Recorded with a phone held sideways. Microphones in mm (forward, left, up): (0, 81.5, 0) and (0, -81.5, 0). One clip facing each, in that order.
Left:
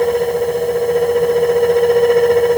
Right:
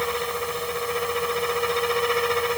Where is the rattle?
No rattle in this recording.